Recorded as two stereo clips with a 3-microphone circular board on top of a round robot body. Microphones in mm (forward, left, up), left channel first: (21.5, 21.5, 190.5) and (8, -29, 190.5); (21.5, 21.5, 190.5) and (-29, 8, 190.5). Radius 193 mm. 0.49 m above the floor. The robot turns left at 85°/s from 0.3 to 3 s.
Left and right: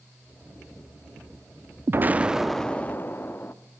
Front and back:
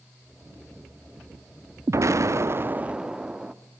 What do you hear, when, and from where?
1.9 s an explosion: 145° right, 1.2 m; by 3.5 s 120° left, 1.2 m